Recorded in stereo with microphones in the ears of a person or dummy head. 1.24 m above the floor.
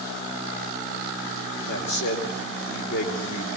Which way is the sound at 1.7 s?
70° left (ahead or behind).